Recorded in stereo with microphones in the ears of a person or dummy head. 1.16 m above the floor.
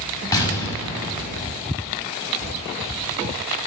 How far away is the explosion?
About 5.5 m.